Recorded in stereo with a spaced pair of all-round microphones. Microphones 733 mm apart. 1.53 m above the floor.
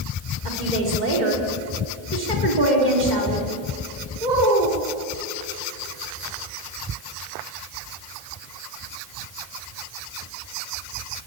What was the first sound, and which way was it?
A woman speaking, 75° right (ahead or behind).